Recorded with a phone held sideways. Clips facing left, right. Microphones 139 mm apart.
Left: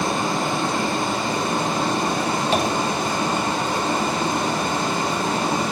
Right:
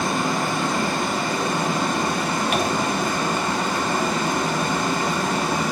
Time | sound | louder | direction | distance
0.0 | running water | even | 30° left (ahead or behind) | 1.5 m
2.5 | tapping | left 3 dB | 30° left (ahead or behind) | 0.8 m